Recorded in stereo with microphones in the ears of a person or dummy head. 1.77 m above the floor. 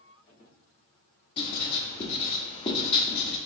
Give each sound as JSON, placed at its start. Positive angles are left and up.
{"t": 1.4, "sound": "writing", "side_deg": 40, "distance_m": 0.8}